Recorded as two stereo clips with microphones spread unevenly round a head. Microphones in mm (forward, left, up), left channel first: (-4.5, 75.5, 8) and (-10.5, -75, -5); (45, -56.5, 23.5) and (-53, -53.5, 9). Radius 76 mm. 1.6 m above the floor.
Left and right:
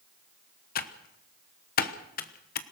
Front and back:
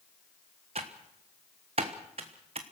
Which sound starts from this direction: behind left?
Typing on a keyboard, at 0.8 s.